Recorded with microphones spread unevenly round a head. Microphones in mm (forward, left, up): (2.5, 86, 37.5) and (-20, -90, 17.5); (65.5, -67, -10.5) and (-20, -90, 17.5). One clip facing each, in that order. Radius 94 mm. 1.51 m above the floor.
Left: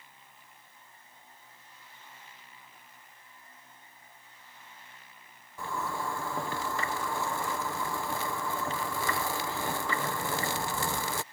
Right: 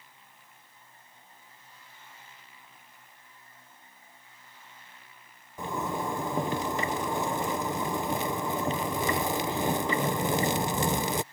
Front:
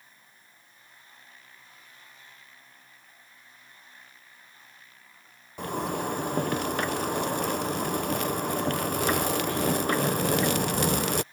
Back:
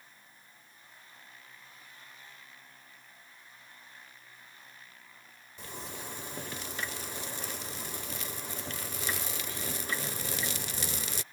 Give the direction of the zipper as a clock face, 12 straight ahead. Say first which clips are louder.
Right 3 dB, front 14 dB; 1 o'clock.